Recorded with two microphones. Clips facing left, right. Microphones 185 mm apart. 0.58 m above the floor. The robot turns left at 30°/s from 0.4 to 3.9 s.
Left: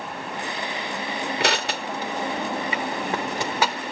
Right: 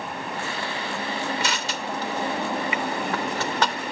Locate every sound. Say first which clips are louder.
1.4 s crushing: left 4 dB; 70° left (ahead or behind), 1.1 m; by 3.8 s 5° left (ahead or behind), 1.1 m